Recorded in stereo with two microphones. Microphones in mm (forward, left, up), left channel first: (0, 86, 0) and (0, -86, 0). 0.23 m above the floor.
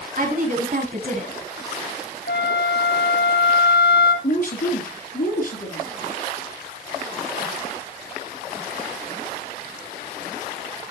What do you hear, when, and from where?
0.2 s a woman speaking: 55° right (ahead or behind), 2.0 m; by 1.4 s 45° right (ahead or behind), 1.8 m
2.3 s a flute: 75° left (ahead or behind), 1.5 m
4.2 s a woman speaking: 55° left (ahead or behind), 2.5 m